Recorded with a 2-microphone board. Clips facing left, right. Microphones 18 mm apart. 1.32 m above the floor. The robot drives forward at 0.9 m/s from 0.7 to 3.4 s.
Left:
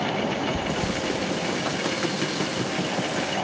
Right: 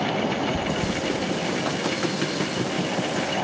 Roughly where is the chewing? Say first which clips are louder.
Right 1 dB; left.